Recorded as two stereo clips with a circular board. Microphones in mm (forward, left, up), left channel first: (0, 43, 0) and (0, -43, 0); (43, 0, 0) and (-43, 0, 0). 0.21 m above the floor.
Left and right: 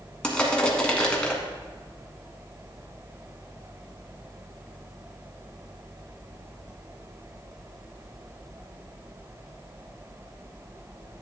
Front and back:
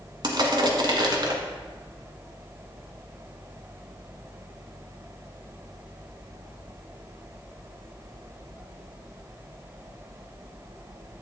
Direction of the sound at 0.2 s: 165° left.